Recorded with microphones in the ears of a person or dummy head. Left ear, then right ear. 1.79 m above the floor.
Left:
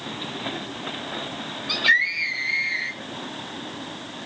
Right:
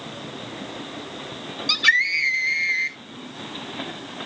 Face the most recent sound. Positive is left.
turn(degrees=-70)  # may be behind; listen again after turning